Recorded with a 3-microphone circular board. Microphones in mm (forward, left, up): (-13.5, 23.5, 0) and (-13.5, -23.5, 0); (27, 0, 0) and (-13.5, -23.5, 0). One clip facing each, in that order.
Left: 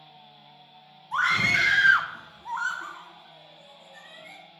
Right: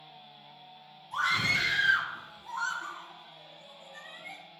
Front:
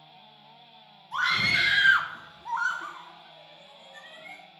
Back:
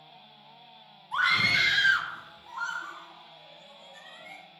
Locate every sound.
1.1 s a scream: 130° left, 1.1 m; by 4.4 s straight ahead, 2 m